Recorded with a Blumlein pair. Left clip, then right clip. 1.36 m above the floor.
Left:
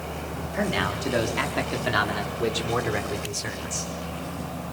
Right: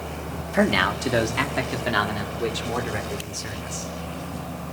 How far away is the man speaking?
About 3.5 m.